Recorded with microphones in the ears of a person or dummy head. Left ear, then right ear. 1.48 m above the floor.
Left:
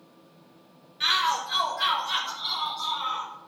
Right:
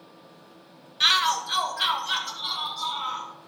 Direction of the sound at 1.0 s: 40° right (ahead or behind).